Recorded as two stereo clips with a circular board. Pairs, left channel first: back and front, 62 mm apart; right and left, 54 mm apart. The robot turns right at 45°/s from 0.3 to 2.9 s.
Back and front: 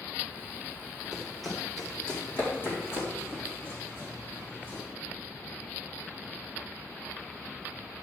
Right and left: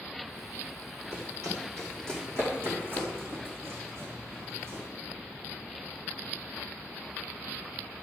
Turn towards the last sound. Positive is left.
turn(degrees=120)